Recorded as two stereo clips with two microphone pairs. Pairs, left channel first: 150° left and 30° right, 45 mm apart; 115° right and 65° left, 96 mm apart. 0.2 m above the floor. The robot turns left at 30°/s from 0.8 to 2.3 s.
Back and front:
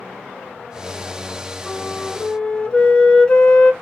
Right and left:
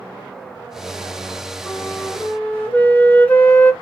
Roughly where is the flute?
Behind right.